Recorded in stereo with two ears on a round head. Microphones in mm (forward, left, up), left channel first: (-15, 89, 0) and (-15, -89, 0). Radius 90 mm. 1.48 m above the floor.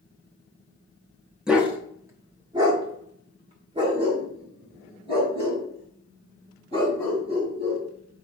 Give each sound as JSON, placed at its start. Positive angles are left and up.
{"t": 1.5, "sound": "a dog barking", "side_deg": -5, "distance_m": 0.9}